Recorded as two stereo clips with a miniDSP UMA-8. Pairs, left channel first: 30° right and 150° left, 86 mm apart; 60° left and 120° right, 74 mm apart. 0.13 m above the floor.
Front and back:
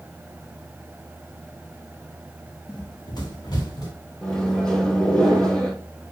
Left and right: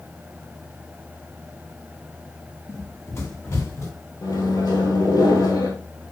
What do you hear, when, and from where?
2.7 s running footsteps: 5° left, 3 m; by 3.9 s 15° left, 3.5 m
4.2 s a microwave: 50° left, 3 m